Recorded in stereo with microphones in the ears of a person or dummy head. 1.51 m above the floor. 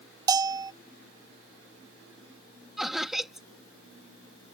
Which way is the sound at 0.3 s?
20° right (ahead or behind).